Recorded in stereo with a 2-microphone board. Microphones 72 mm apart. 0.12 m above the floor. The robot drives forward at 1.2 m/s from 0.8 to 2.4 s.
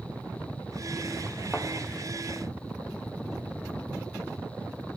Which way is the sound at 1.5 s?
5° left (ahead or behind).